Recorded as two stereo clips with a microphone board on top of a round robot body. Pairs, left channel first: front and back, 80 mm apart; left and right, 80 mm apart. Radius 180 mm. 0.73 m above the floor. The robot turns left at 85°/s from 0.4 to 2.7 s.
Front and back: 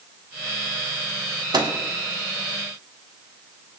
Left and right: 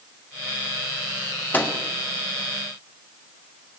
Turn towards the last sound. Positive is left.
turn(degrees=60)